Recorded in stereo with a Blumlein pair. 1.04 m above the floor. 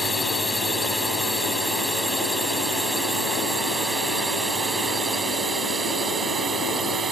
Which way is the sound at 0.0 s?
5° left.